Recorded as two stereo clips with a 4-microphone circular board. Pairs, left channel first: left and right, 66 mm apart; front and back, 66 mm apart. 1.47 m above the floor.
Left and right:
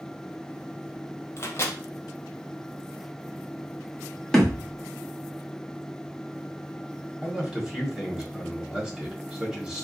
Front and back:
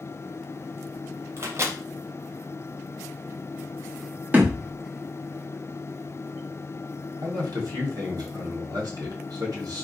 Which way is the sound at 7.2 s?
175° right.